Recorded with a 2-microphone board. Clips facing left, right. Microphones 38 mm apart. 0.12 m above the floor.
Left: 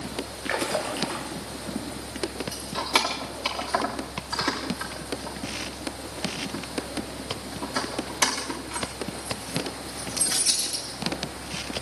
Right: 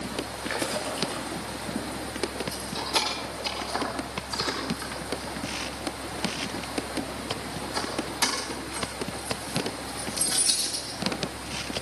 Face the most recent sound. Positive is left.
turn(degrees=65)  # may be behind; listen again after turning